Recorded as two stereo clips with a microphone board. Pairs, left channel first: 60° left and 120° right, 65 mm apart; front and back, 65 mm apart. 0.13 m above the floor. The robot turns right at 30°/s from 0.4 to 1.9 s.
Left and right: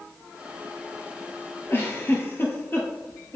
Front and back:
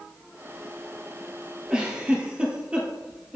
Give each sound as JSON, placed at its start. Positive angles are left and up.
{"t": 1.7, "sound": "a giggle", "azimuth_deg": 105, "distance_m": 1.5}